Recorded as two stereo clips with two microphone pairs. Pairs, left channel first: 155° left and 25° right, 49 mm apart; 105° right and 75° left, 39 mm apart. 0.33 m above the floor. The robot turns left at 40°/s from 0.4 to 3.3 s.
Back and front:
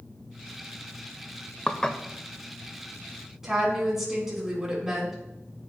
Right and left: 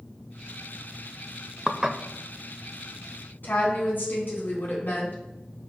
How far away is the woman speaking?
About 3.5 m.